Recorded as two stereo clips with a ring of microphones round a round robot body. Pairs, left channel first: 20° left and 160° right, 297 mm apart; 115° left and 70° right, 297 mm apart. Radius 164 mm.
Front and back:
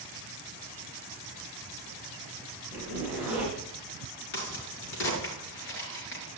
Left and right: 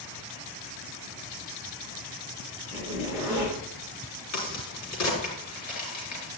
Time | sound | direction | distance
2.7 | a zipper | 120° left | 7.5 m
4.3 | a crack | 75° left | 5 m